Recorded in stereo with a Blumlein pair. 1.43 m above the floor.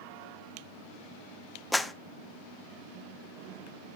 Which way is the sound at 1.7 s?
5° left.